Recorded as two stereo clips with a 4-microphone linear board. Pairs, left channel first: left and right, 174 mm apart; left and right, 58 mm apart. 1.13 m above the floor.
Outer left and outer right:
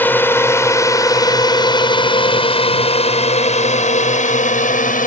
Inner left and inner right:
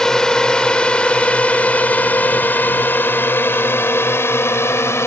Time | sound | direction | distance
0.0 | a drone | 10° left (ahead or behind) | ?